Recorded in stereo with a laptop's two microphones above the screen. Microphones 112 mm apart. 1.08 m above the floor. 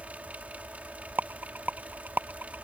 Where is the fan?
15° right (ahead or behind).